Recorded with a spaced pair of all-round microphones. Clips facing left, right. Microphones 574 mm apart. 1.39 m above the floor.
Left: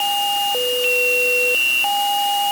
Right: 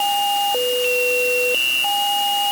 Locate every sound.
Only background noise.